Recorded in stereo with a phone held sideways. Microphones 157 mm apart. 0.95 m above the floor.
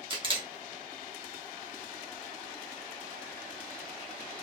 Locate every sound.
0.1 s a camera shutter: 30° right (ahead or behind), 1.1 m